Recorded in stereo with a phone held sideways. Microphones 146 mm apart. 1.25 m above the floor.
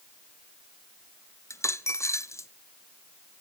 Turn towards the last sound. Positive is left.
turn(degrees=20)  # may be behind; listen again after turning